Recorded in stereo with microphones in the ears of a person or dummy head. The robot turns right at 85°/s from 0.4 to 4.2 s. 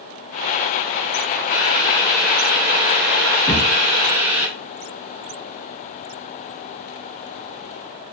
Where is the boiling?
120° left, 1.7 m; by 4.5 s 10° right, 1.7 m.